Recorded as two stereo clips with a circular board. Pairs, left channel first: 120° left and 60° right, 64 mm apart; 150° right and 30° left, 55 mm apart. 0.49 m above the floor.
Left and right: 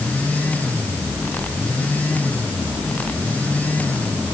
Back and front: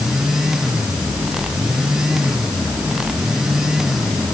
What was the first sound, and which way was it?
Only background noise.